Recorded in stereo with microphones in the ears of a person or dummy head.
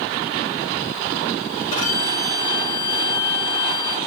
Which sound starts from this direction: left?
A violin, at 1.7 s.